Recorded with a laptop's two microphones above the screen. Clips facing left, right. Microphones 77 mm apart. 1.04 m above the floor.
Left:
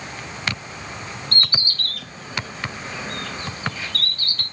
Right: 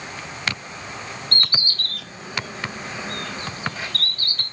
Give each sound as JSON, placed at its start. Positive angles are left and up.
{"t": 1.3, "sound": "a bird", "side_deg": -50, "distance_m": 1.5}